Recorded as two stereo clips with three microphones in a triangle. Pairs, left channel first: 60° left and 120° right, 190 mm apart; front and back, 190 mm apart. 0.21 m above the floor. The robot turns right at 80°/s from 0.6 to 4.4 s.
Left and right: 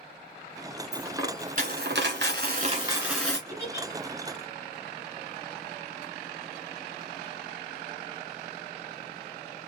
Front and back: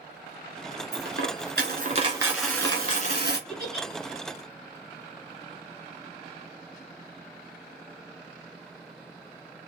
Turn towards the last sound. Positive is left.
turn(degrees=115)